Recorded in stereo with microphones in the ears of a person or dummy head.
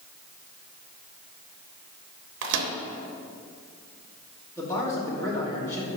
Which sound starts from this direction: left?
A man speaking, at 4.6 s.